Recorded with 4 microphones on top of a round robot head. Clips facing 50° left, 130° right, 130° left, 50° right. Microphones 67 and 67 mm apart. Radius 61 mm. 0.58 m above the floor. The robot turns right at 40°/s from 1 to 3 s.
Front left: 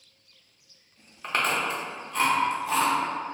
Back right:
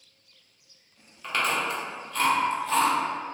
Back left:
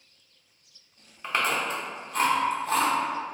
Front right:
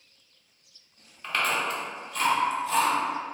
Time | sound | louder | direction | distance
1.2 | chewing | even, even | 70° left | 0.8 m